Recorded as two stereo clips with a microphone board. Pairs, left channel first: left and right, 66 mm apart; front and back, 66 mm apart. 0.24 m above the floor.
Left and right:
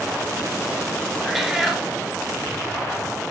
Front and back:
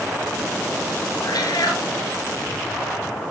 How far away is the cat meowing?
About 1.6 m.